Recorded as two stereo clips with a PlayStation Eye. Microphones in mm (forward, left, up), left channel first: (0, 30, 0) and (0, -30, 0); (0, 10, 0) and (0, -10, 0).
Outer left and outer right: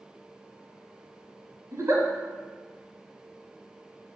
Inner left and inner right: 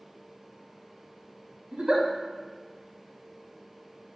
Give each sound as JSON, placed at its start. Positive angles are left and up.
{"t": 1.7, "sound": "a giggle", "side_deg": -50, "distance_m": 0.7}